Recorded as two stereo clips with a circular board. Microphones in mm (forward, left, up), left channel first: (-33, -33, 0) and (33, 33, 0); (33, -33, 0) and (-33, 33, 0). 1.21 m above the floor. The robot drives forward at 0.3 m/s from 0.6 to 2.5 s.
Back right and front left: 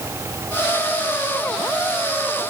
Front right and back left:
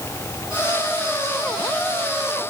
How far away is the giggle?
I don't hear a giggle.